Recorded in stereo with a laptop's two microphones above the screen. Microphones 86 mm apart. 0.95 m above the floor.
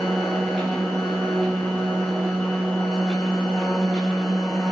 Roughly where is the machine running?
Centre.